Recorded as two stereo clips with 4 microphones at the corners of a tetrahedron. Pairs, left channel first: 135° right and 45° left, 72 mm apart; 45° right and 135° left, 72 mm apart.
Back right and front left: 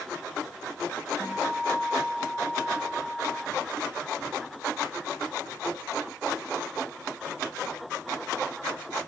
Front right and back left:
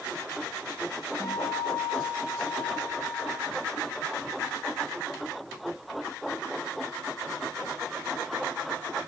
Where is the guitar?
85° right, 1.2 m.